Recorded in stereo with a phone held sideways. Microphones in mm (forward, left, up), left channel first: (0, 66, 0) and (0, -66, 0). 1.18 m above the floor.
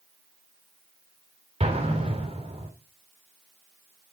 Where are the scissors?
No scissors in this recording.